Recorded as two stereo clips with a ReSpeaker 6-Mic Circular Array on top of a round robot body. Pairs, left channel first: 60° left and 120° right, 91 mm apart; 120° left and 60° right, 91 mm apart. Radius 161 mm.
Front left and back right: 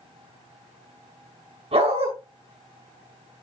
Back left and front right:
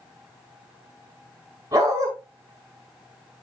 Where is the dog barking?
115° right, 5.5 m.